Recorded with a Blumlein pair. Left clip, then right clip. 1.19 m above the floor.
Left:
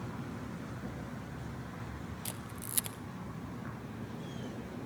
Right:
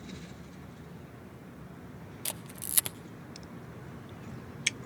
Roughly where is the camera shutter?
Right.